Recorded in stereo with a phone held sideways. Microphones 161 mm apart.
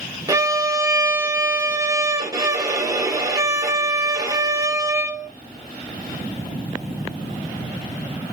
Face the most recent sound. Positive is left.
turn(degrees=-20)  # may be behind; listen again after turning